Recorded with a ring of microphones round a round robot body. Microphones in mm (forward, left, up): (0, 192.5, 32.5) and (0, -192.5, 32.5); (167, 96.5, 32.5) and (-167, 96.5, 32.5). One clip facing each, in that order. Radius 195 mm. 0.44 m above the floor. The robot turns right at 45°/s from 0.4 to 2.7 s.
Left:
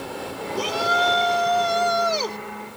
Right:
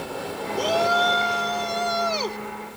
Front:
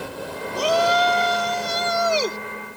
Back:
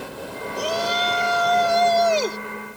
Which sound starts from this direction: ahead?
A shout, at 0.6 s.